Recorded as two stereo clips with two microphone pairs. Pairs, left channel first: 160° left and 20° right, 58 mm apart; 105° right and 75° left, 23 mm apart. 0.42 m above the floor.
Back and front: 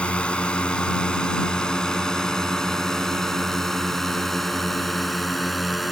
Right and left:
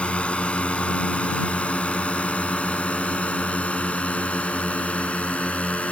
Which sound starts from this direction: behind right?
A drone, at 0.0 s.